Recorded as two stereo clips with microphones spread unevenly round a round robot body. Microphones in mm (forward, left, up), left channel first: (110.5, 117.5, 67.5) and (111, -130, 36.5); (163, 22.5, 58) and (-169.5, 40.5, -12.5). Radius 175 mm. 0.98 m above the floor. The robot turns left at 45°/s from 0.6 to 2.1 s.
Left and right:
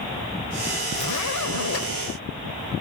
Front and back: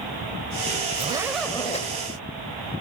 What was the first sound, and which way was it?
A zipper, 105° left.